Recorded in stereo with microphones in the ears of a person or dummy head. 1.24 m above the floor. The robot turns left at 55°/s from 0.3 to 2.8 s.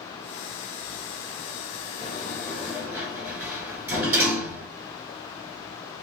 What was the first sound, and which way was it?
A sliding door, 30° left (ahead or behind).